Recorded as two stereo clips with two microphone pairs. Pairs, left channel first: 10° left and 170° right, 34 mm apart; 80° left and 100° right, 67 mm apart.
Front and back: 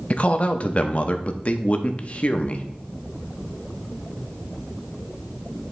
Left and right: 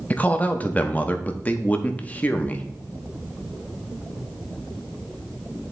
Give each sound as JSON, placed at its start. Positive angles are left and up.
{"t": 0.1, "sound": "a man speaking", "azimuth_deg": 25, "distance_m": 0.8}